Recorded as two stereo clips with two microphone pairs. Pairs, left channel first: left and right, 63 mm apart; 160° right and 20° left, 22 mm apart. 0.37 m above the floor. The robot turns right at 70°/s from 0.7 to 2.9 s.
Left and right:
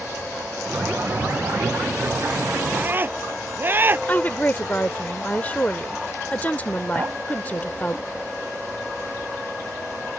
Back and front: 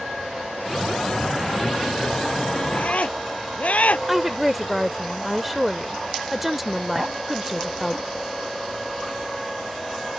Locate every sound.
2.7 s a scream: 160° right; by 4.0 s 150° right
4.1 s a woman speaking: 95° left
7.0 s a clink: 35° right